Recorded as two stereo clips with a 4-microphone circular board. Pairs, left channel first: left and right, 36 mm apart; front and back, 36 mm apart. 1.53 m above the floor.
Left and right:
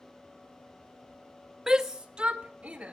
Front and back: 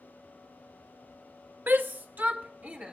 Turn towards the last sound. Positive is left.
turn(degrees=-140)